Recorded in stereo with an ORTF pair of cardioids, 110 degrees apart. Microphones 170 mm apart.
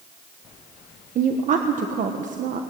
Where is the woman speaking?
50° right, 1.4 m.